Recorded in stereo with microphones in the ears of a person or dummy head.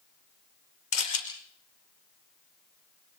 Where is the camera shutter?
70° left (ahead or behind), 5 m.